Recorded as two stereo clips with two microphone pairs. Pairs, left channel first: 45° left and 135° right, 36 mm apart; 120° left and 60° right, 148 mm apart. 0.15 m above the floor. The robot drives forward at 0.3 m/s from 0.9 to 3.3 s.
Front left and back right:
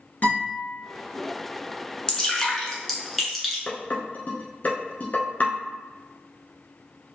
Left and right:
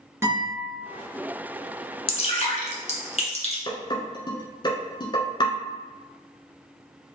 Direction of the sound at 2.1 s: 115° left.